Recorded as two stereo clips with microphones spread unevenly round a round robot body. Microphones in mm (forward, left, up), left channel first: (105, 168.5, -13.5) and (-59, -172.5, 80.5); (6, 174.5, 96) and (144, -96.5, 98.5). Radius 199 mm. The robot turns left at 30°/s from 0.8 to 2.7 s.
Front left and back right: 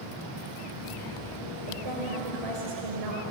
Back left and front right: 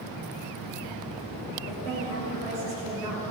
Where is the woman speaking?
105° right, 6.5 m; by 3.2 s 135° right, 6.5 m.